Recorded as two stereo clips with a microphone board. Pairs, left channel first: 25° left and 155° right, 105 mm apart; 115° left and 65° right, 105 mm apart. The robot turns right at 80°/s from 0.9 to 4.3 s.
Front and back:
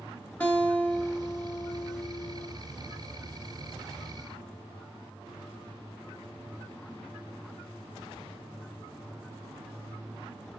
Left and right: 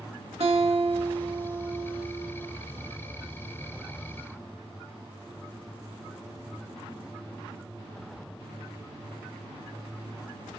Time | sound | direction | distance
0.4 | a guitar | 55° right | 1.1 m